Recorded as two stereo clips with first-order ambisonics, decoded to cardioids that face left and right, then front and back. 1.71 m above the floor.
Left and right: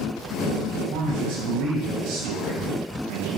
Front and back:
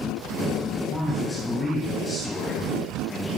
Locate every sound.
0.9 s a man speaking: 95° right, 1.9 m; by 3.4 s 60° right, 3 m